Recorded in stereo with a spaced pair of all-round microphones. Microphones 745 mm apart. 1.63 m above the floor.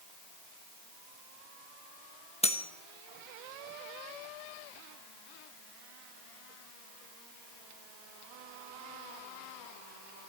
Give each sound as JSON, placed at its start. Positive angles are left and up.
{"t": 2.4, "sound": "cutlery clinking", "side_deg": 10, "distance_m": 1.1}